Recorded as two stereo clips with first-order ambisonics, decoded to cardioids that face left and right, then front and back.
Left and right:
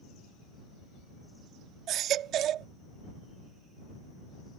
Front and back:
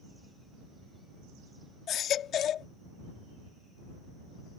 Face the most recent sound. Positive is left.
turn(degrees=-50)